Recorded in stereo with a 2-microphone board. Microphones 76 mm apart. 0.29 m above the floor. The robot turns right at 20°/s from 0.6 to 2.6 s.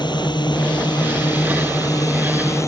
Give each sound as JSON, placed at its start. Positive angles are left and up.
{"t": 0.0, "sound": "a drone", "azimuth_deg": 100}